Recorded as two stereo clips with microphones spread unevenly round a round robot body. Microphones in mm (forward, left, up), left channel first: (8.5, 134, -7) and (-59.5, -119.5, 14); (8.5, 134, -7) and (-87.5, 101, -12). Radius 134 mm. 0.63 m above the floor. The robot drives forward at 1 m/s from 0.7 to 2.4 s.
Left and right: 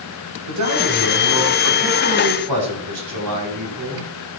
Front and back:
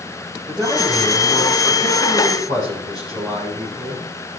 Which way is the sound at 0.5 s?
75° right.